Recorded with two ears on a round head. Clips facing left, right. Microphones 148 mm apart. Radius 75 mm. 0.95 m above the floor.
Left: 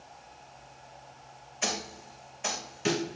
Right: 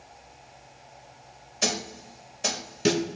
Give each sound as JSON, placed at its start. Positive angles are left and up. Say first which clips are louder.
{"t": 1.6, "sound": "a snare drum", "louder": "right 4 dB", "side_deg": -45, "distance_m": 2.5}